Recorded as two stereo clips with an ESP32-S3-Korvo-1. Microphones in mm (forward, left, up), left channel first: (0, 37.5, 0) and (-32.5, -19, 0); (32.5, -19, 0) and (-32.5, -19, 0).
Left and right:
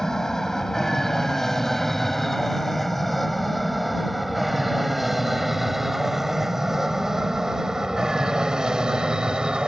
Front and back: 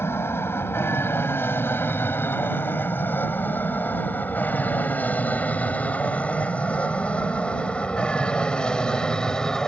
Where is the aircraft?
20° right; by 9.7 s 65° right.